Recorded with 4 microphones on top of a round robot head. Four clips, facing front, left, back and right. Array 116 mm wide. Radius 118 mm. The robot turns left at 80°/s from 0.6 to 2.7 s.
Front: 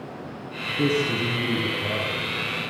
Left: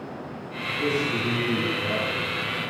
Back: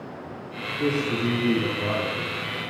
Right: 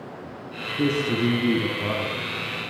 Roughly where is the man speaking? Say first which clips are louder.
Right 3 dB, front 1 dB; ahead right.